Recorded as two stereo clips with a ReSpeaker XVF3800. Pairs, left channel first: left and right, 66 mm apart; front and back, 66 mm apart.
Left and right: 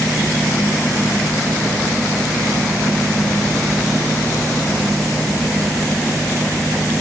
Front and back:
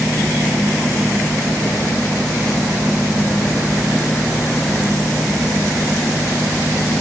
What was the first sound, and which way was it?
Only background noise.